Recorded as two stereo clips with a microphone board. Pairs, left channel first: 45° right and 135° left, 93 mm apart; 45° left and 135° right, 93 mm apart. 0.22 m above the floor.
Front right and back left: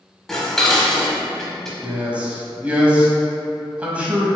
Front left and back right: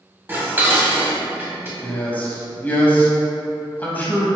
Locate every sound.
0.3 s dishes clattering: 125° right, 0.9 m
1.8 s a man speaking: 80° left, 1.0 m